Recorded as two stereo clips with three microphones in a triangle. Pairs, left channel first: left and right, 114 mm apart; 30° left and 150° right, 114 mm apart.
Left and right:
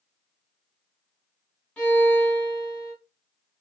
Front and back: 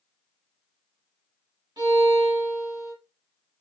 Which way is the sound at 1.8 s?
170° left.